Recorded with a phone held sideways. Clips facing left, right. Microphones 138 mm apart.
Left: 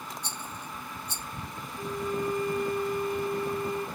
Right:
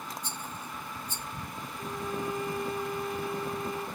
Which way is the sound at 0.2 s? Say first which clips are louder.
Even; 75° left (ahead or behind).